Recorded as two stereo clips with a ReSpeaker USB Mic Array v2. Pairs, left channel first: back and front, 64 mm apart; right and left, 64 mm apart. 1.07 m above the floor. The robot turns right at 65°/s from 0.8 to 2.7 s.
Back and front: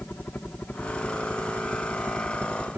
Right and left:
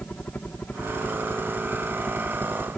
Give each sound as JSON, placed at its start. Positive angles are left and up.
{"t": 0.0, "sound": "a helicopter", "azimuth_deg": -140}